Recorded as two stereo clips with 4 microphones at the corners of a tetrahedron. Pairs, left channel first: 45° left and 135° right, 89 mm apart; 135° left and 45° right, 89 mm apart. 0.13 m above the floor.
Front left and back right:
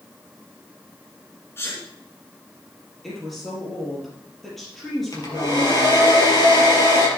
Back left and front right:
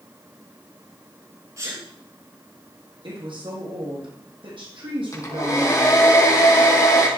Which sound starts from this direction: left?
A hair dryer, at 5.1 s.